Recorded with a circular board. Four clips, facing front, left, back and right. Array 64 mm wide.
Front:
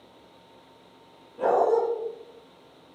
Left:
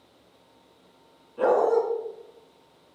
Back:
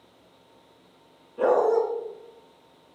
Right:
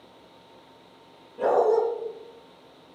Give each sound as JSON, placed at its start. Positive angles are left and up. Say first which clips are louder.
{"t": 1.4, "sound": "a dog barking", "louder": "even, back 1 dB", "azimuth_deg": 105, "distance_m": 4.0}